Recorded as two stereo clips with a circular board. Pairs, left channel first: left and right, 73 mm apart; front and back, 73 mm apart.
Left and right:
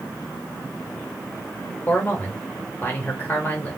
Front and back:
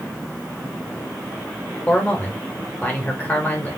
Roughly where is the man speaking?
Ahead left.